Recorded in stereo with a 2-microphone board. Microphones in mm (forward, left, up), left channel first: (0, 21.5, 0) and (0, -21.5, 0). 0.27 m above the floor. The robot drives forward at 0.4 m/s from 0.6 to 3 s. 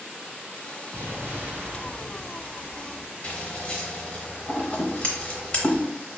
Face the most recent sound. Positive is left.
turn(degrees=25)  # may be behind; listen again after turning